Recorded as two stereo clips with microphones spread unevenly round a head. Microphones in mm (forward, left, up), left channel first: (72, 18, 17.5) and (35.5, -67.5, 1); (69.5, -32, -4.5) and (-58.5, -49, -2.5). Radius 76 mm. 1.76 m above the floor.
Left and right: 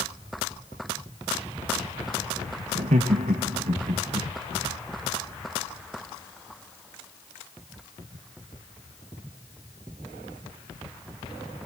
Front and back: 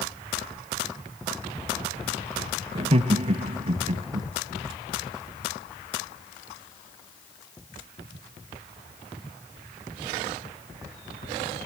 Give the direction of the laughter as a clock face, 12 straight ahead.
4 o'clock.